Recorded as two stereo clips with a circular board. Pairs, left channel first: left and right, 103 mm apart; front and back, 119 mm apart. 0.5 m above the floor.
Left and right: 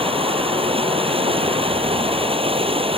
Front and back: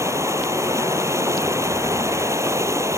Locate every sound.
0.0 s running water: 115° right